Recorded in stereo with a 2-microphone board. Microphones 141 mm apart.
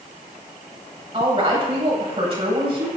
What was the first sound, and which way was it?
A woman speaking, 40° right (ahead or behind).